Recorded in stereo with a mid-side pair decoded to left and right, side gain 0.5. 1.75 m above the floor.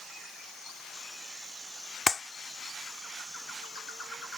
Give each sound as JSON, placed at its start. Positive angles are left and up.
{"t": 2.1, "sound": "a clap", "azimuth_deg": 25}